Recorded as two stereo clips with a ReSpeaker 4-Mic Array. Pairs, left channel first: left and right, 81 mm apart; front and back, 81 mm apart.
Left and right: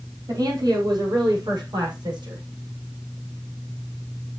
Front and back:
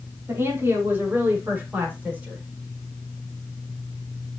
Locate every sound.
0.3 s a woman speaking: 120° right, 5 m; by 2.4 s 105° right, 7 m